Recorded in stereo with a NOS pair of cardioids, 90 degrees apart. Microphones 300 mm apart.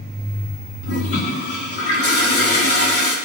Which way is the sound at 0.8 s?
50° left.